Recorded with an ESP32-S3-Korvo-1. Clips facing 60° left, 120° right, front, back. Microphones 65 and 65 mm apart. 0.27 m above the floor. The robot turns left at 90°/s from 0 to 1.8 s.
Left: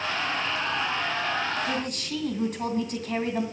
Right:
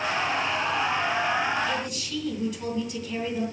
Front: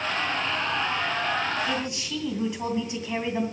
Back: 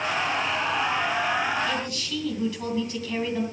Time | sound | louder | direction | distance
1.7 | a man speaking | even, even | 75° left | 2.5 m